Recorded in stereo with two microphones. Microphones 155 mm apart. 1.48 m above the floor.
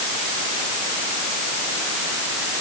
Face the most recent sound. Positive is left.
No sound to turn to.